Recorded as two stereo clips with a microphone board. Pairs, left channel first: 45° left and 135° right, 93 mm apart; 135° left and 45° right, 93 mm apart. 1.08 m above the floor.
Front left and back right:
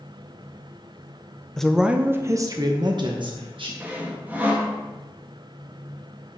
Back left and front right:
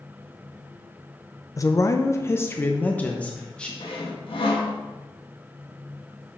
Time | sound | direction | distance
1.6 | a woman speaking | 125° left | 0.7 m
3.8 | sawing | 155° left | 1.5 m